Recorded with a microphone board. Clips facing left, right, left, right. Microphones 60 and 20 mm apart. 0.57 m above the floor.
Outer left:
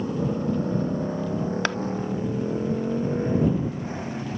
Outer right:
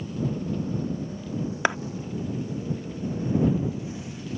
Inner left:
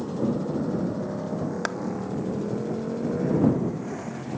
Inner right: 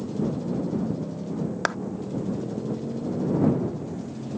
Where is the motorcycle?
45° left (ahead or behind).